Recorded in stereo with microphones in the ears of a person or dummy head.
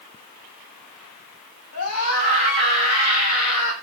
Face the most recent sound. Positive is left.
turn(degrees=85)